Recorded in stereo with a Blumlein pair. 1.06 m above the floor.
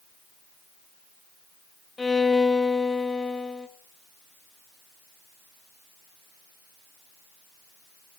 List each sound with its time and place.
2.0 s a violin: 10° left, 0.7 m